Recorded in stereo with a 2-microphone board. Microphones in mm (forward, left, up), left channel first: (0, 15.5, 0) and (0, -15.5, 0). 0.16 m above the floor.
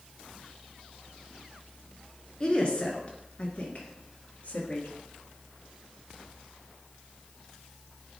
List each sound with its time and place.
2.4 s a woman speaking: 25° left (ahead or behind), 2 m; by 4.9 s 50° left (ahead or behind), 3 m